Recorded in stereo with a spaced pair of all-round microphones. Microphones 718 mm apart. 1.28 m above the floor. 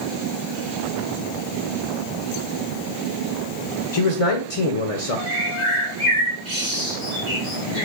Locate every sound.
3.9 s a man speaking: 50° left (ahead or behind), 0.6 m
5.3 s a bird: 75° right (ahead or behind), 1.4 m